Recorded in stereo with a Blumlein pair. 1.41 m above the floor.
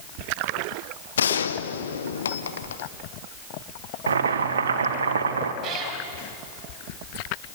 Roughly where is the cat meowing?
Ahead right.